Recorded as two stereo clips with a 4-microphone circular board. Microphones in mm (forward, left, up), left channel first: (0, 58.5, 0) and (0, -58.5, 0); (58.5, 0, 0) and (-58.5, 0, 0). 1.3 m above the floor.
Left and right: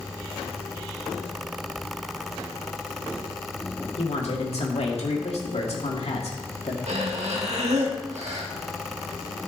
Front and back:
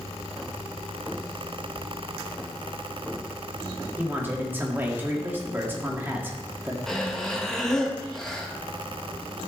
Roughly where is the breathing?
Right.